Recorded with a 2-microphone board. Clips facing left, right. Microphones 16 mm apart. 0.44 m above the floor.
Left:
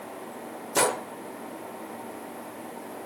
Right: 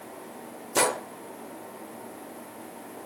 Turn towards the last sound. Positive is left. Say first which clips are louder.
# even
turn(degrees=0)  # may be behind; listen again after turning